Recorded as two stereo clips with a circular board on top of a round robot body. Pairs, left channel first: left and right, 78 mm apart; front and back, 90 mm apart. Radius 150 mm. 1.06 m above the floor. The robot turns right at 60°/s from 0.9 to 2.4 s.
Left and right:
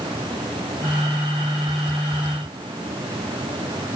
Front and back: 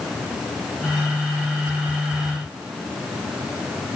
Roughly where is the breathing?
I don't hear breathing.